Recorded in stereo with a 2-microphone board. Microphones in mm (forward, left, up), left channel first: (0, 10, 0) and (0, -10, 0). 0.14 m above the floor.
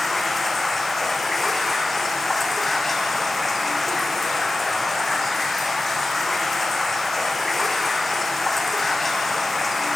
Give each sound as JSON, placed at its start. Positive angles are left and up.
{"t": 0.0, "sound": "running water", "side_deg": 10, "distance_m": 3.0}